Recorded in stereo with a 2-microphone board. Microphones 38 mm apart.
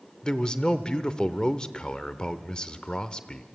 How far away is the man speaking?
About 0.8 m.